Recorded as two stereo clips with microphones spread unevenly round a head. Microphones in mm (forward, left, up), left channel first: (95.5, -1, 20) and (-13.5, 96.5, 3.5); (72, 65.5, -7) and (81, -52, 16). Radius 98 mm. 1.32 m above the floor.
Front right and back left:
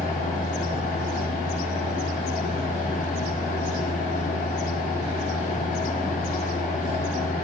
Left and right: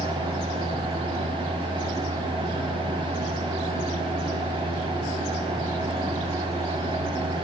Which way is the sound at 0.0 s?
45° right.